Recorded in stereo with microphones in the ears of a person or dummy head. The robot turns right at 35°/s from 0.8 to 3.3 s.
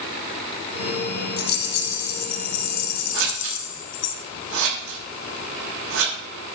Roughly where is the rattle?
Ahead left.